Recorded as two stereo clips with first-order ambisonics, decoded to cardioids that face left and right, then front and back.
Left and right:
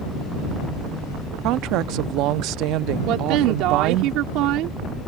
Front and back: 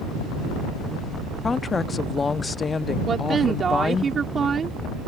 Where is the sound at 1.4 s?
70° right.